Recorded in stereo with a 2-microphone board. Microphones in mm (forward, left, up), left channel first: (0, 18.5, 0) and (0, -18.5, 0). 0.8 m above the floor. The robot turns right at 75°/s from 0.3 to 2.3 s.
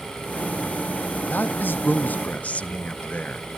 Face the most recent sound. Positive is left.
turn(degrees=135)